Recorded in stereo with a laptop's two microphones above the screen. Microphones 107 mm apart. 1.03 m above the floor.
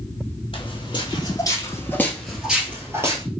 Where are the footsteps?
55° left (ahead or behind), 1.7 m; by 3.2 s 30° right (ahead or behind), 1.3 m.